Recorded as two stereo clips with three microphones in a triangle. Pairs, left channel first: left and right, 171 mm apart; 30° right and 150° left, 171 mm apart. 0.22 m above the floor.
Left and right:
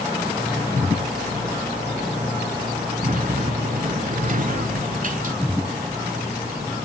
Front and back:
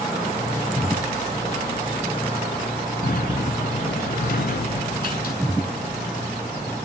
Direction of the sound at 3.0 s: 55° right.